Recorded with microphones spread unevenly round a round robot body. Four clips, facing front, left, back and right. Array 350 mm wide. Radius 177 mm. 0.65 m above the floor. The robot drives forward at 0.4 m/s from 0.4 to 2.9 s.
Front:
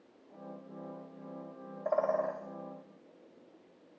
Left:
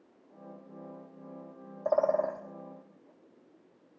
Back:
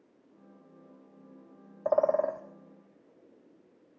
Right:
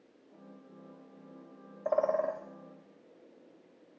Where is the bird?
165° left, 0.9 m; by 2.4 s 170° left, 1.1 m.